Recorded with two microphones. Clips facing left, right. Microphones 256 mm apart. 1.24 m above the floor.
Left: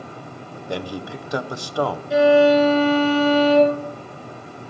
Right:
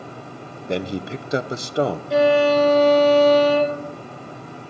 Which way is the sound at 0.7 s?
25° right (ahead or behind).